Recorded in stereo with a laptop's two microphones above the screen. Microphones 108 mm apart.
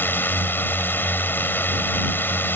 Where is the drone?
20° left (ahead or behind).